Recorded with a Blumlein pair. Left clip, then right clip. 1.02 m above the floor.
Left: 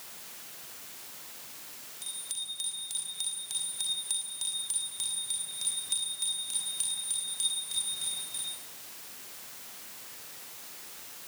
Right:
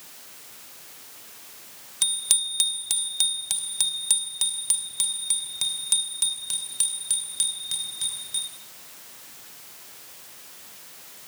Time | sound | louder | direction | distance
2.0 | a bicycle bell | right 13 dB | 50° right | 2.5 m